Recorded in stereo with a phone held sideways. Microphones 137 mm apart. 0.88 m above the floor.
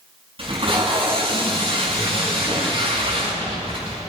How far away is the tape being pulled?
About 6.5 m.